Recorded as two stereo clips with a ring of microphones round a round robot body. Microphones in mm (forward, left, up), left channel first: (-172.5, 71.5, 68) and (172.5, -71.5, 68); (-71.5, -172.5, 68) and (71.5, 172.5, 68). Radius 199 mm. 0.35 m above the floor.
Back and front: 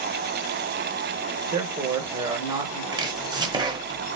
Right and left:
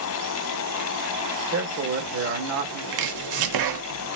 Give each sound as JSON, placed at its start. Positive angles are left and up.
{"t": 1.5, "sound": "a man speaking", "azimuth_deg": 50, "distance_m": 1.8}
{"t": 2.9, "sound": "chopping", "azimuth_deg": 55, "distance_m": 1.0}